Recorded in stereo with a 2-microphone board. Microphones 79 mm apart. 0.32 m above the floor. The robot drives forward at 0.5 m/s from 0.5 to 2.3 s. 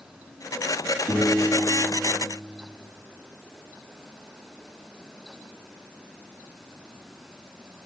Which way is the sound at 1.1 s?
45° left (ahead or behind).